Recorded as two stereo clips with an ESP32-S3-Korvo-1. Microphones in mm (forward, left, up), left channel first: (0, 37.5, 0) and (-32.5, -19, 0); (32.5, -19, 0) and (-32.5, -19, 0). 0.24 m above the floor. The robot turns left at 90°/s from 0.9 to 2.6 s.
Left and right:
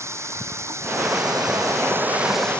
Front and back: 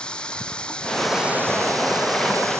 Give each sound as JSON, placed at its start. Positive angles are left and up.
{"t": 0.0, "sound": "running water", "azimuth_deg": -75}